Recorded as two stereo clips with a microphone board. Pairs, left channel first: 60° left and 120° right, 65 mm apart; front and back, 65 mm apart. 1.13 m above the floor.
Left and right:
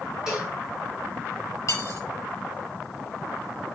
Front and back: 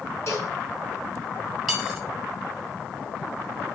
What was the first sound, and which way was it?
A cowbell, 45° right.